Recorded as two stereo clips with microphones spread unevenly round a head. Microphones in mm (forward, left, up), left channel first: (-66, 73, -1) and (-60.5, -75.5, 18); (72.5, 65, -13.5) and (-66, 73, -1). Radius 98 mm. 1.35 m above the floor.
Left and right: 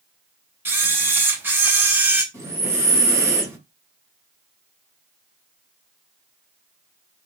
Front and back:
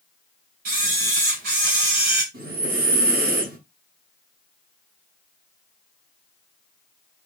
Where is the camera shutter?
160° right, 4 m.